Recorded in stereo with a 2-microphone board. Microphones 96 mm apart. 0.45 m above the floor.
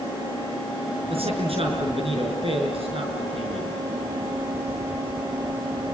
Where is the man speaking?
80° right, 6 m.